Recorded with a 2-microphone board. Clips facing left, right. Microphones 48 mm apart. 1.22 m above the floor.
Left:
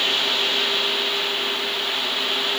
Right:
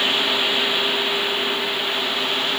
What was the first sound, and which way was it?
Only background noise.